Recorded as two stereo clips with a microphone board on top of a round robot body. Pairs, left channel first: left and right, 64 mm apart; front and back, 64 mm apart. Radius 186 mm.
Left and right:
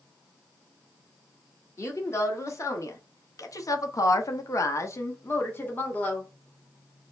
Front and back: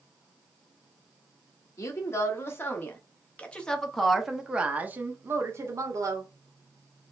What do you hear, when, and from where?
1.8 s a woman speaking: 45° left, 1.8 m; by 6.3 s 155° left, 1.4 m